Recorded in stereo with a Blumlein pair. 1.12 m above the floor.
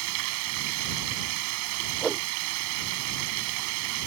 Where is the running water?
45° right.